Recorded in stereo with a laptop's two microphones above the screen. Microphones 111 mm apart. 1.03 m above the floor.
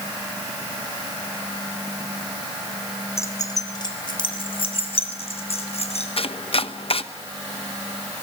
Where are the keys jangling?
25° left (ahead or behind), 2.5 m; by 6.1 s 70° left (ahead or behind), 5 m.